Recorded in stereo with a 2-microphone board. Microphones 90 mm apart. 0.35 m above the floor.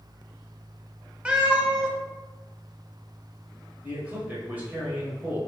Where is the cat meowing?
10° right (ahead or behind), 0.5 m.